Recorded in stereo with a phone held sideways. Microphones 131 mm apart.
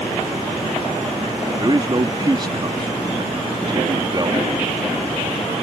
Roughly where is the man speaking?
Right.